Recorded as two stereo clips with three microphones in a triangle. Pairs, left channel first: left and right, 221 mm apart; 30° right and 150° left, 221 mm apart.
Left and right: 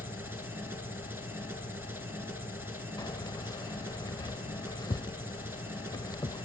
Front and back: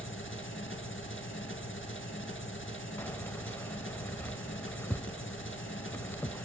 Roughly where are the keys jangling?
Ahead left.